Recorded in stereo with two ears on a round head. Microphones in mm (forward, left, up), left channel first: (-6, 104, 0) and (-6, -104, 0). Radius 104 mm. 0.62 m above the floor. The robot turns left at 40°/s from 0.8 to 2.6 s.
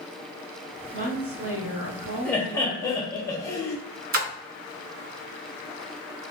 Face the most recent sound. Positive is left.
turn(degrees=-40)  # may be behind; listen again after turning